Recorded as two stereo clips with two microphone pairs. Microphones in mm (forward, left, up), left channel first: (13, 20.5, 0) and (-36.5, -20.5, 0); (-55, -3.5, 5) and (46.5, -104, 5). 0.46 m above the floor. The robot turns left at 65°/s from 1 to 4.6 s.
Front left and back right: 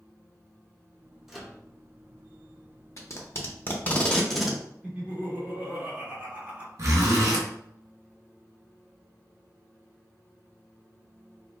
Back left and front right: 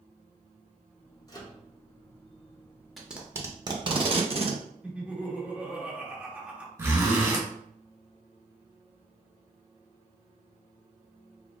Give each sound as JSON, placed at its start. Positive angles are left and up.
{"t": 1.3, "sound": "a microwave", "azimuth_deg": 150, "distance_m": 0.6}
{"t": 3.0, "sound": "tape being pulled", "azimuth_deg": 40, "distance_m": 0.6}
{"t": 4.8, "sound": "laughter", "azimuth_deg": -115, "distance_m": 0.9}
{"t": 6.8, "sound": "a zipper", "azimuth_deg": -110, "distance_m": 1.1}